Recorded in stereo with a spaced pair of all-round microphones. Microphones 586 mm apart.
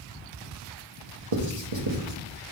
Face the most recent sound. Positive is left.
turn(degrees=-60)  # may be behind; listen again after turning